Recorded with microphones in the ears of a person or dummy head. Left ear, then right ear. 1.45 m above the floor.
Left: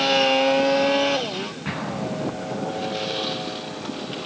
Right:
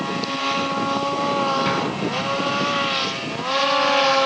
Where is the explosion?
20° right (ahead or behind), 8 m.